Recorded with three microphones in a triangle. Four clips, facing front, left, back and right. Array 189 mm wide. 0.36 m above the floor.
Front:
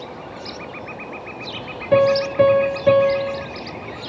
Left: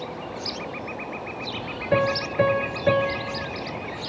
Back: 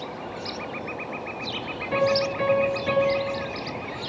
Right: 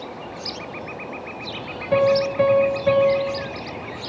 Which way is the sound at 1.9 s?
10° left.